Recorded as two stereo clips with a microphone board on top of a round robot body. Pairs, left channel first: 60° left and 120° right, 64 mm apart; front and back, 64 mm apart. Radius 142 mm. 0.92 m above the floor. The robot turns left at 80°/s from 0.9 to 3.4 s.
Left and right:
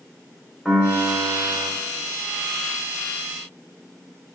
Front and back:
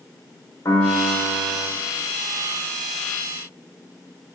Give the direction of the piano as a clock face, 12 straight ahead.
1 o'clock.